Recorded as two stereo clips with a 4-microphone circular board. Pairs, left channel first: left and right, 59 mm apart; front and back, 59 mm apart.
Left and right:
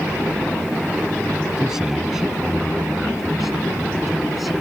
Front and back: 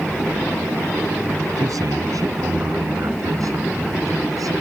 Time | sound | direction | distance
1.6 | a man speaking | 170° right | ?